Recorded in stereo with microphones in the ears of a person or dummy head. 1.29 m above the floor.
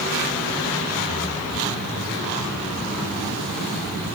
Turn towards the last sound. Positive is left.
No sound to turn to.